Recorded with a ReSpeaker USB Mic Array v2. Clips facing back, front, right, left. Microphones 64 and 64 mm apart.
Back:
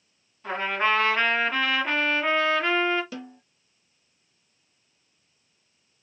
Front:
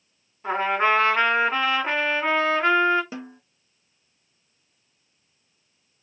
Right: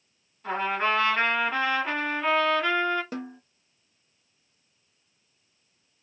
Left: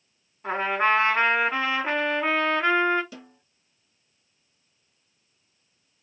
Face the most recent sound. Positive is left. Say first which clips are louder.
# front 2 dB, right 9 dB
turn(degrees=-60)